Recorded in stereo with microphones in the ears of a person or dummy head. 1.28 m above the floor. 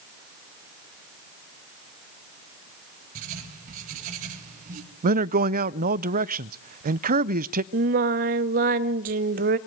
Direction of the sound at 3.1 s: 45° right (ahead or behind).